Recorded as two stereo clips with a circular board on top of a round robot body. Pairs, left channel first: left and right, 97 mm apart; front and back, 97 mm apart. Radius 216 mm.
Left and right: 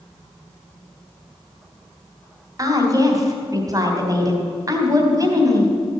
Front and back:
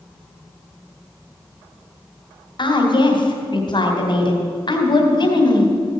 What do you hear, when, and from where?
2.6 s a woman speaking: 35° right, 2.5 m